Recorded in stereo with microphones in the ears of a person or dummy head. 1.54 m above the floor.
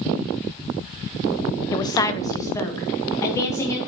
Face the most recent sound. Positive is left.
turn(degrees=15)  # may be behind; listen again after turning